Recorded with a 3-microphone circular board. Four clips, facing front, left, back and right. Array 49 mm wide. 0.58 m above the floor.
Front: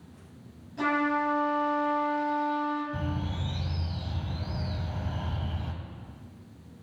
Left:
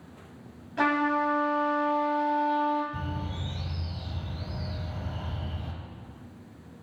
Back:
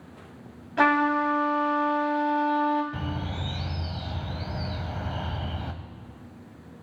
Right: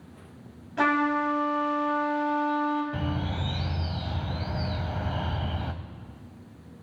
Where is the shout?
No shout in this recording.